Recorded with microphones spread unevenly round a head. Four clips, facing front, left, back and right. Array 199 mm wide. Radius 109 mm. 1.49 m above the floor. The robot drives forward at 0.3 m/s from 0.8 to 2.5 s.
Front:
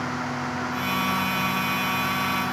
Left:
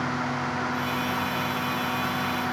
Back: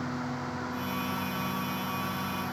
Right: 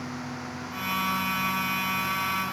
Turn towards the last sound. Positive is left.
No sound to turn to.